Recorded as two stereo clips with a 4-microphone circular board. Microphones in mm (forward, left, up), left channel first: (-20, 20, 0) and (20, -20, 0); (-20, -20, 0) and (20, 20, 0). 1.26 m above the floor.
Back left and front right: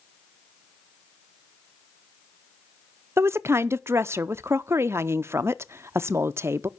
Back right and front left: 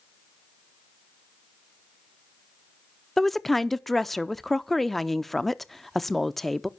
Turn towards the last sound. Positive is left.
turn(degrees=-50)